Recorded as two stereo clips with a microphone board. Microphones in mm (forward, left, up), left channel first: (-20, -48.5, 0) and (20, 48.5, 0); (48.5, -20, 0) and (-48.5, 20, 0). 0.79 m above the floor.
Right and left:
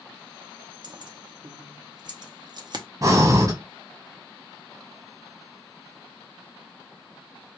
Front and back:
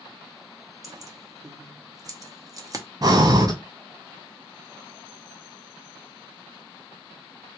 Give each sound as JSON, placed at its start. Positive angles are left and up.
{"t": 0.8, "sound": "keys jangling", "azimuth_deg": 105, "distance_m": 0.7}
{"t": 3.0, "sound": "breathing", "azimuth_deg": 115, "distance_m": 1.2}